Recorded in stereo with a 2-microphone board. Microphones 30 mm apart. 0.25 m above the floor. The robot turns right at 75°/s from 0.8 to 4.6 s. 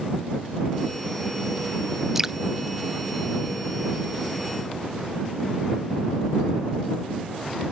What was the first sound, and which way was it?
Dripping, 10° right (ahead or behind).